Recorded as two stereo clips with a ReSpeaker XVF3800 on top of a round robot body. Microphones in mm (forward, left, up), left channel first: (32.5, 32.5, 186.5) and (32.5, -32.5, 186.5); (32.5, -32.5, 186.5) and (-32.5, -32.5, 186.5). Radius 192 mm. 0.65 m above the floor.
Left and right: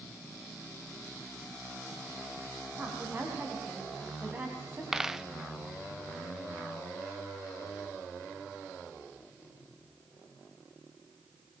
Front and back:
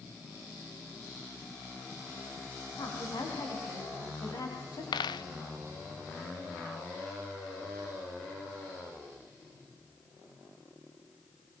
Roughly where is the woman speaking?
Ahead right.